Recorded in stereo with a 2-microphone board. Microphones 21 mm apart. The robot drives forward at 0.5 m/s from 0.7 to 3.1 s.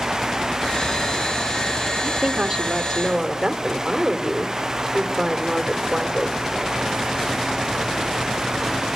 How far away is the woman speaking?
About 1.7 m.